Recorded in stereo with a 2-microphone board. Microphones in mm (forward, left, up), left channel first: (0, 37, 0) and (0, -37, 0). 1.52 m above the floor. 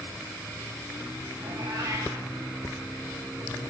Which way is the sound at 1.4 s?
80° right.